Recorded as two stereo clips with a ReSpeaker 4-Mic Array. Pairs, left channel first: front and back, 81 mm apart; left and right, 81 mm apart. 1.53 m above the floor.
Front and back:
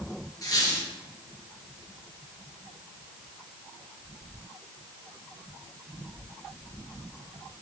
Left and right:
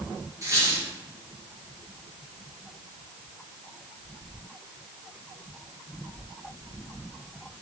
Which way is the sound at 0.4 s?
45° right.